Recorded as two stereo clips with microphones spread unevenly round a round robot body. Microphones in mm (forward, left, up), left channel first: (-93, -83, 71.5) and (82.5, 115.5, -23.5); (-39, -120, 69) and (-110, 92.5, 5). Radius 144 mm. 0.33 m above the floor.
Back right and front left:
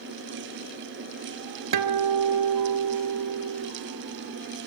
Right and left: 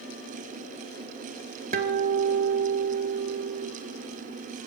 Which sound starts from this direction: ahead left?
A guitar, at 1.7 s.